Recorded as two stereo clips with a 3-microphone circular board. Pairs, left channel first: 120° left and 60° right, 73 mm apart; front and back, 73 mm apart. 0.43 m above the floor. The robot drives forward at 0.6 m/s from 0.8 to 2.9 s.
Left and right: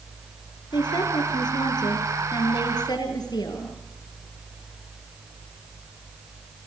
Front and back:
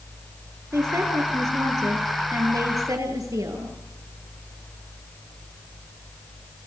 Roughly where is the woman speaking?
Behind left.